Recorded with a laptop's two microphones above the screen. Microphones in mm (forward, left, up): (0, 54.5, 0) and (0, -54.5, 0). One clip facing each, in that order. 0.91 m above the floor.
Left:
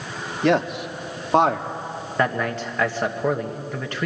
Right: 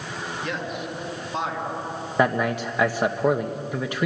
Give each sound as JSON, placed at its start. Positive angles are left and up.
{"t": 0.4, "sound": "a man speaking", "side_deg": 75, "distance_m": 1.5}
{"t": 2.2, "sound": "a man speaking", "side_deg": -15, "distance_m": 1.1}